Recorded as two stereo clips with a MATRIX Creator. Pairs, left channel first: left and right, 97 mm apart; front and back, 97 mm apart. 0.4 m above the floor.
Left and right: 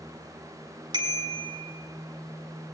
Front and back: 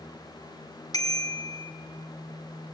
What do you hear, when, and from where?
0.9 s a bicycle bell: 50° right, 2.5 m